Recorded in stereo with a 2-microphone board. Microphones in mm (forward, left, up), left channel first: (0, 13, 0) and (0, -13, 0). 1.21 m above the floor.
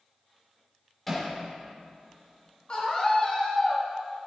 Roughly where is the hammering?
Centre.